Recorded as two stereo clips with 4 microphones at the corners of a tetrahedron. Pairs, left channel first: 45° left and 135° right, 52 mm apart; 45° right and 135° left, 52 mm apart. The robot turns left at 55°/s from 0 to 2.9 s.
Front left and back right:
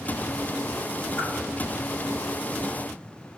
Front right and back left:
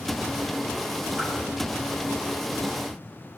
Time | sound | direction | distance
1.2 | a whoosh | 40° left | 1.0 m